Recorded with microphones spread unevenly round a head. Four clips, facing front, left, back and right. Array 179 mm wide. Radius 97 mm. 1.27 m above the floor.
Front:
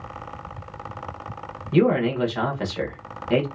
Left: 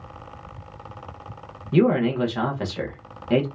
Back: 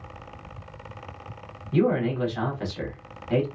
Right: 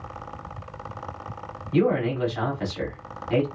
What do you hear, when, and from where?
1.7 s a man speaking: 45° left, 1.1 m